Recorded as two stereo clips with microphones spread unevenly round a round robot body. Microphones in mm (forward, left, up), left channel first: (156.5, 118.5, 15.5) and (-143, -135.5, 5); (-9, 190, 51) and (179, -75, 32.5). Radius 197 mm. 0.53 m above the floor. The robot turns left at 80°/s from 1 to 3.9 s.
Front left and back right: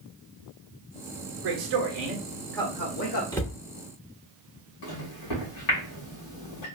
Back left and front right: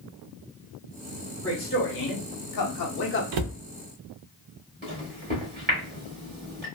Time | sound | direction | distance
1.4 | a man speaking | 150° right | 1.1 m
3.3 | a cupboard door | 40° right | 0.7 m
4.8 | a microwave | 5° left | 1.8 m